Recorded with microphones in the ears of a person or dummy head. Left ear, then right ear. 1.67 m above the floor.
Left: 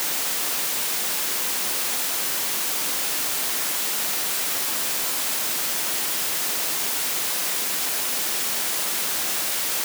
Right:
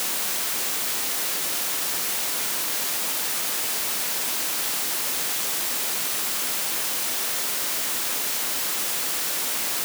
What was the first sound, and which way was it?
Only background noise.